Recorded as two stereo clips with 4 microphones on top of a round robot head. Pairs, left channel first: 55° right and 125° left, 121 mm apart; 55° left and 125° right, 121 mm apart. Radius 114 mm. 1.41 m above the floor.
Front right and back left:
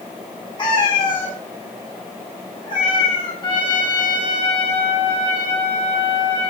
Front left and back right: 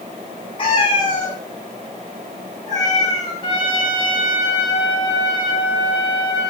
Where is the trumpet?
Straight ahead, 7.5 m.